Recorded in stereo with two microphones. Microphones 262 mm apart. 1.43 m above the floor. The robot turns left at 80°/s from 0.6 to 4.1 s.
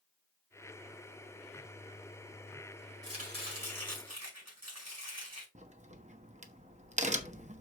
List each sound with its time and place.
3.0 s chopping: 15° right, 5 m; by 5.5 s 100° right, 5 m
5.5 s a crack: 25° right (ahead or behind), 1.1 m